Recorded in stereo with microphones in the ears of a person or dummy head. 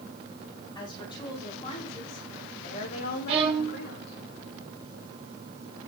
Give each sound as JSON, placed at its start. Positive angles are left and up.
{"t": 0.8, "sound": "a woman speaking", "side_deg": 20, "distance_m": 5.0}
{"t": 3.3, "sound": "a violin", "side_deg": -30, "distance_m": 2.5}